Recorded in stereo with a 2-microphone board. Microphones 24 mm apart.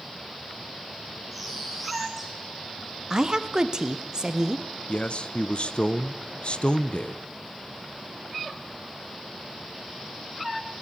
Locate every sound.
1.3 s a bird: 5° right (ahead or behind), 6 m
3.1 s a woman speaking: 30° right (ahead or behind), 1.4 m
4.9 s a man speaking: 50° left (ahead or behind), 0.9 m